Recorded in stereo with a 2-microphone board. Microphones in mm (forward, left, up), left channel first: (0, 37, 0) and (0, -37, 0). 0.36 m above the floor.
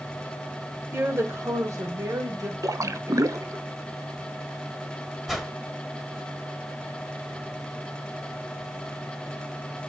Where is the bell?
I don't hear a bell.